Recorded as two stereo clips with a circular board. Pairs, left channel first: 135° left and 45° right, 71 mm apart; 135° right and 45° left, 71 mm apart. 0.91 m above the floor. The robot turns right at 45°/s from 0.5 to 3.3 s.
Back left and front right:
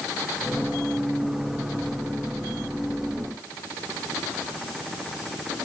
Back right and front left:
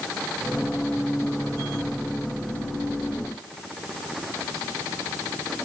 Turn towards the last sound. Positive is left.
No sound to turn to.